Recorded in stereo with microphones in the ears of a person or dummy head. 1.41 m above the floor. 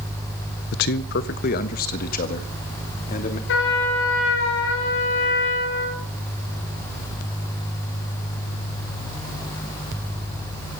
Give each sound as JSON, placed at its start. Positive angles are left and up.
{"t": 0.7, "sound": "a man speaking", "side_deg": 60, "distance_m": 0.8}
{"t": 3.5, "sound": "a trumpet", "side_deg": 70, "distance_m": 4.0}